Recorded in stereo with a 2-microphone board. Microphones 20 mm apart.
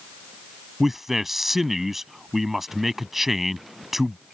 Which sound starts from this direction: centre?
A man speaking, at 0.8 s.